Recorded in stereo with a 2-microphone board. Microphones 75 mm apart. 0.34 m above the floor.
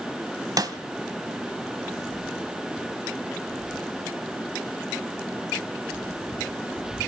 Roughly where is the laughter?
No laughter in this recording.